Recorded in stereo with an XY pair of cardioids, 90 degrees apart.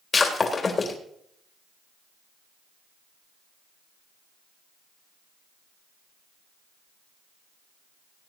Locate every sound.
0.1 s breaking glass: 40° left, 3 m